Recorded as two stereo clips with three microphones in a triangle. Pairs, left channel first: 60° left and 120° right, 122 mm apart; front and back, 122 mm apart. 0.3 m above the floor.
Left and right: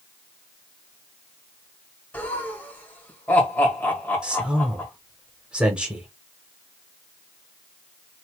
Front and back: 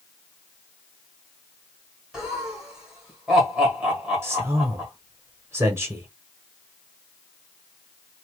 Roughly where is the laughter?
Left.